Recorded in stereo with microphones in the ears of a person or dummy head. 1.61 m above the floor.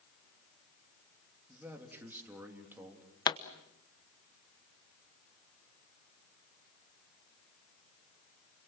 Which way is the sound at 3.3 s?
30° left (ahead or behind).